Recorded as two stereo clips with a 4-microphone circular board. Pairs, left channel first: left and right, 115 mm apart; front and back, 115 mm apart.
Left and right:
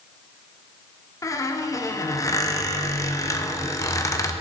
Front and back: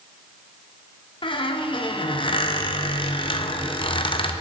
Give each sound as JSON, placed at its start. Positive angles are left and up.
{"t": 1.2, "sound": "a squeak", "azimuth_deg": 30, "distance_m": 0.6}